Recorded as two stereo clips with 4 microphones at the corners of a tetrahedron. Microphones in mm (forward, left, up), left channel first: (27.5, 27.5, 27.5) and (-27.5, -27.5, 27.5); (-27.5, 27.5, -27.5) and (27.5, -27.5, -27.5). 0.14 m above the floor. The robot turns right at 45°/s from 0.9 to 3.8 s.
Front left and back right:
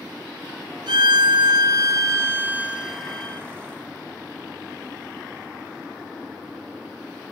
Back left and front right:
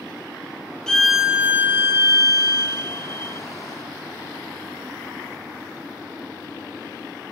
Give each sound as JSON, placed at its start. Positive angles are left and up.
{"t": 0.9, "sound": "a violin", "azimuth_deg": -145, "distance_m": 0.6}